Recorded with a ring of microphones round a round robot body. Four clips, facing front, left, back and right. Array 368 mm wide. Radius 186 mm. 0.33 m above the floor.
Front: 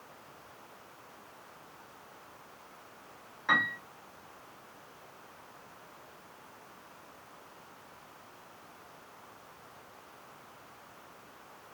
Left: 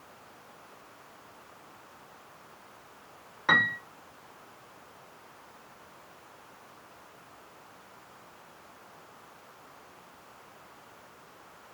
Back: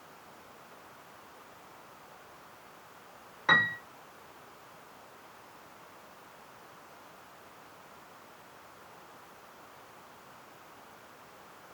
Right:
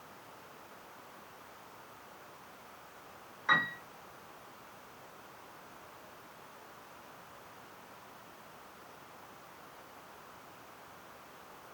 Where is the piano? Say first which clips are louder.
Left 5 dB, back 2 dB; 120° left, 2.5 m.